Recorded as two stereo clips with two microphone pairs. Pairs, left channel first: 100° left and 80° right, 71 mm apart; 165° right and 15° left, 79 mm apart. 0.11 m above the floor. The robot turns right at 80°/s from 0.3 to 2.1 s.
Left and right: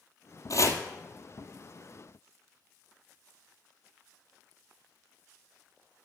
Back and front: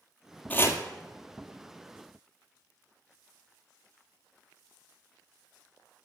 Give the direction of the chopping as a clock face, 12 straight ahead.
8 o'clock.